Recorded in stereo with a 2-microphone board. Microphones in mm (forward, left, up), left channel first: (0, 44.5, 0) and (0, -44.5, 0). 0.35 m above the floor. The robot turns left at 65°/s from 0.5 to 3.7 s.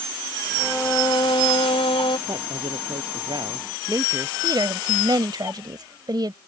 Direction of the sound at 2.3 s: 50° right.